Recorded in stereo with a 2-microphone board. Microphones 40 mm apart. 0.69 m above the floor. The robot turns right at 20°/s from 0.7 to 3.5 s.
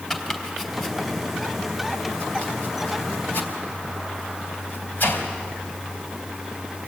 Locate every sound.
0.1 s chopping: 5° right (ahead or behind), 3.5 m; by 5.3 s 50° left (ahead or behind), 3.5 m